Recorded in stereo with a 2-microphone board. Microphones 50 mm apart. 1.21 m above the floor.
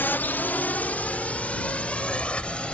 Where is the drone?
40° left (ahead or behind); by 2.8 s 20° left (ahead or behind).